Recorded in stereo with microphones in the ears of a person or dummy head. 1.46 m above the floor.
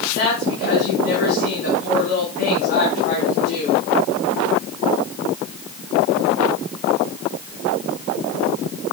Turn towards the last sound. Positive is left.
turn(degrees=55)  # may be behind; listen again after turning